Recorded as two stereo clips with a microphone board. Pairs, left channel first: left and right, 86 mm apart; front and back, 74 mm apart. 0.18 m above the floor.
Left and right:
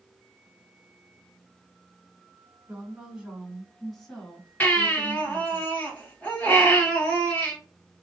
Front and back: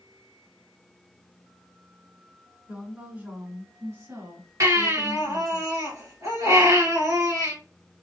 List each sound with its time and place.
2.7 s a woman speaking: 135° right, 1.4 m; by 5.6 s 160° left, 2.5 m
4.6 s a baby crying: 160° left, 2.5 m